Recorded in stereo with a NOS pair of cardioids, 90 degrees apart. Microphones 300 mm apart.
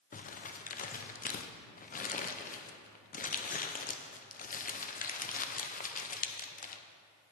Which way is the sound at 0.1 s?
30° left.